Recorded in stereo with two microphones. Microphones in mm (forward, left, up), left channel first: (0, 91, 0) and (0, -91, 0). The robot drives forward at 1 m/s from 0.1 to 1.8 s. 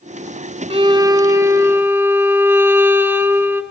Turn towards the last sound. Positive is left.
turn(degrees=-10)  # may be behind; listen again after turning